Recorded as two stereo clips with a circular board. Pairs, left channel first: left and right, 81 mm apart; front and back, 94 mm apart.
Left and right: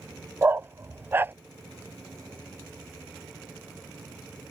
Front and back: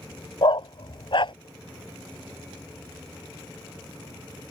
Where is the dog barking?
25° right.